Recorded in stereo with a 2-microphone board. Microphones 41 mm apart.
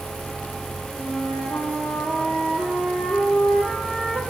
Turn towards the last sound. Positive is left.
turn(degrees=-20)  # may be behind; listen again after turning